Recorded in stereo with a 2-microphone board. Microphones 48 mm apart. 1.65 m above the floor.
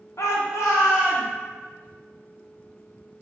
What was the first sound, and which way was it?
A shout, 80° left.